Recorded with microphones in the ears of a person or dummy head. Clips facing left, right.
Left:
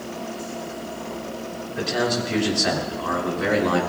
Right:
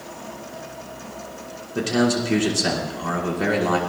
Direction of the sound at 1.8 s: 45° right (ahead or behind).